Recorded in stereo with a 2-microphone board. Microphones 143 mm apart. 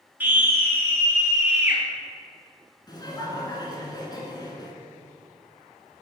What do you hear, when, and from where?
0.2 s a scream: 10° right (ahead or behind), 1.4 m; by 1.8 s 15° right (ahead or behind), 2 m
2.9 s laughter: 30° left (ahead or behind), 1.3 m